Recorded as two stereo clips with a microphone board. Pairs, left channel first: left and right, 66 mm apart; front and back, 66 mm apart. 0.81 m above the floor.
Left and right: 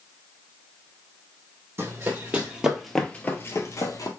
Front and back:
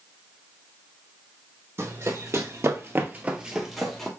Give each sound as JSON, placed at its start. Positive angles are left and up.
{"t": 1.8, "sound": "running footsteps", "azimuth_deg": -140, "distance_m": 1.6}